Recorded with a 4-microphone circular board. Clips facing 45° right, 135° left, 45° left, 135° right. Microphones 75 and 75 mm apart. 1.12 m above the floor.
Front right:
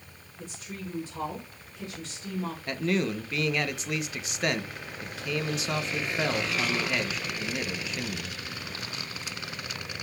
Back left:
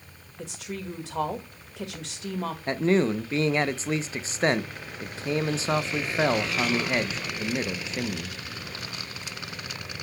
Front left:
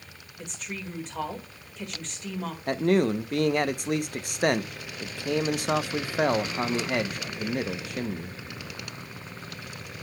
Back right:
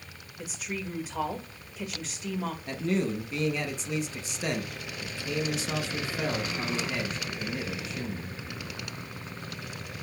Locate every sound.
0.4 s a woman speaking: 140° left, 1.8 m
2.7 s a man speaking: 75° left, 0.7 m